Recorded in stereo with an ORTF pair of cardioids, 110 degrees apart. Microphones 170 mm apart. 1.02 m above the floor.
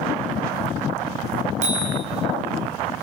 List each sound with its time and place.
1.6 s a bicycle bell: 45° right, 7 m